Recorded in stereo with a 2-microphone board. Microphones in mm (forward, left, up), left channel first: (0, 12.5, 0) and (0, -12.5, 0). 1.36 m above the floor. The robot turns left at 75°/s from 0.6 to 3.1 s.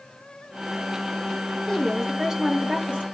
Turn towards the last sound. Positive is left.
turn(degrees=-75)